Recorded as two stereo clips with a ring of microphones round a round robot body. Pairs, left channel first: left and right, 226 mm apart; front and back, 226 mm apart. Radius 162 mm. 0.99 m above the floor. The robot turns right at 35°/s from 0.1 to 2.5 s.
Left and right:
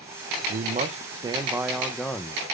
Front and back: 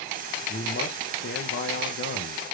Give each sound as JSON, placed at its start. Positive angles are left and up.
{"t": 0.5, "sound": "a man speaking", "azimuth_deg": -50, "distance_m": 0.8}